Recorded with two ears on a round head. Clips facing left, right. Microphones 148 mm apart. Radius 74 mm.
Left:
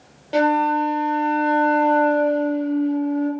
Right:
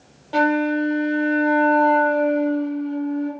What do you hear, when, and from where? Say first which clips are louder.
0.3 s a flute: left 1 dB; 25° left (ahead or behind), 0.9 m